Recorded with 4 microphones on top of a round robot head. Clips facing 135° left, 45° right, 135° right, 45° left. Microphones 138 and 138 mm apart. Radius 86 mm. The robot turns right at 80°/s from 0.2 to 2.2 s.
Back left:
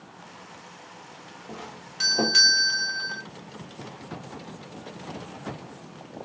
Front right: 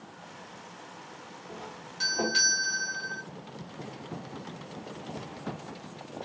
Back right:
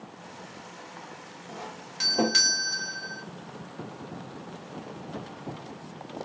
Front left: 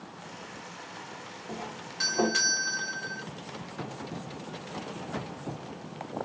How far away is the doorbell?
About 1.6 m.